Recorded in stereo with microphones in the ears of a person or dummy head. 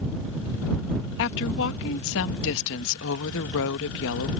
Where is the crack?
I don't hear a crack.